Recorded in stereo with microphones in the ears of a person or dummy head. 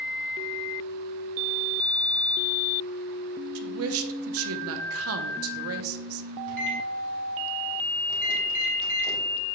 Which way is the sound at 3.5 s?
70° right (ahead or behind).